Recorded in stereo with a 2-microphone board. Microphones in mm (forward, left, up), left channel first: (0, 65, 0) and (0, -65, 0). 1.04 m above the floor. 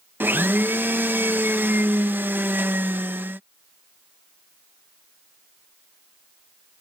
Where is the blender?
15° right (ahead or behind).